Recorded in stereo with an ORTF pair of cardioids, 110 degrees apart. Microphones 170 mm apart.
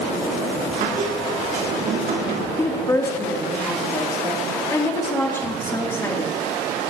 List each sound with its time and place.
0.8 s a squeak: 60° right, 2.5 m
2.6 s a woman speaking: 15° left, 3 m